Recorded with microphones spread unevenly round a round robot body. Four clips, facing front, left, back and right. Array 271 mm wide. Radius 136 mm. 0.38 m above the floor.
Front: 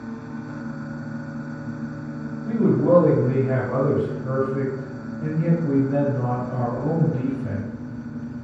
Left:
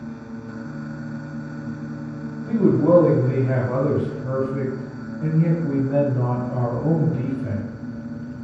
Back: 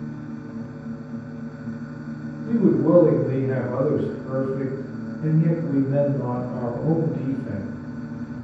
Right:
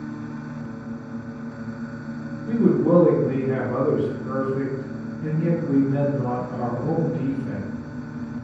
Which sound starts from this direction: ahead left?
A man speaking, at 2.4 s.